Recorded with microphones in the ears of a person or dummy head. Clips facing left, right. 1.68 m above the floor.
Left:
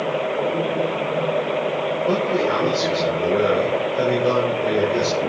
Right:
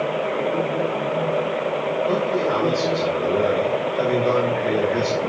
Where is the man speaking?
40° left (ahead or behind), 5.5 m.